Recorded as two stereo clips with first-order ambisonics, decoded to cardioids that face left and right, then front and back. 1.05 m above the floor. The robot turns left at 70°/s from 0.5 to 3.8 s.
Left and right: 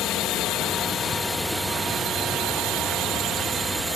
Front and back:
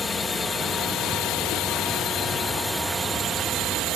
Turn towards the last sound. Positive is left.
turn(degrees=-165)